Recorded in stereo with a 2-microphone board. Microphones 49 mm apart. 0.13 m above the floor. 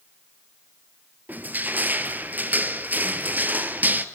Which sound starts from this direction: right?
Crushing, at 1.3 s.